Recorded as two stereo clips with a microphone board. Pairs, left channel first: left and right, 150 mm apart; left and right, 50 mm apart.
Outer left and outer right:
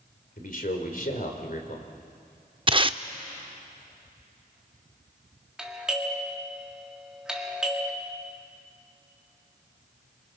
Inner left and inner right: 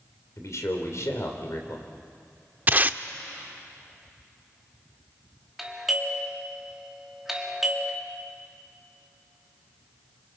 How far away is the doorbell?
About 2 m.